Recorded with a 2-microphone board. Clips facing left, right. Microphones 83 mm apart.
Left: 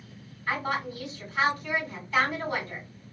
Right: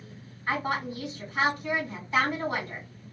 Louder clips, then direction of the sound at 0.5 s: Right 1 dB; 25° right (ahead or behind).